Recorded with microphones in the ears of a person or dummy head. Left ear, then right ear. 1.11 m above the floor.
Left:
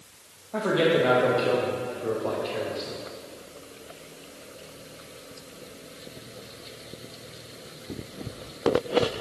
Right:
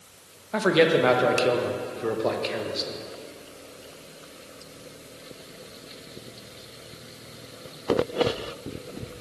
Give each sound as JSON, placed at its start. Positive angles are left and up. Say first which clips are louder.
{"t": 0.5, "sound": "a man speaking", "louder": "right 2 dB", "side_deg": -75, "distance_m": 0.8}